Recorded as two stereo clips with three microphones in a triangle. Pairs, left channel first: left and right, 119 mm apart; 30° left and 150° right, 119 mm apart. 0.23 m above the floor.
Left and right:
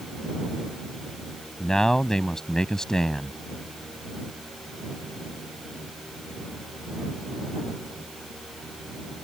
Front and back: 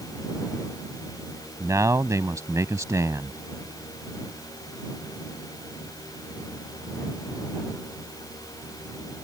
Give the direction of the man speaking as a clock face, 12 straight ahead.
6 o'clock.